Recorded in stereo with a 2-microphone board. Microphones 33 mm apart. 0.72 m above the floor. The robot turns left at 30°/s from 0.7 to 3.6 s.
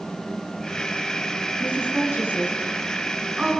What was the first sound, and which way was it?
A woman speaking, 85° right.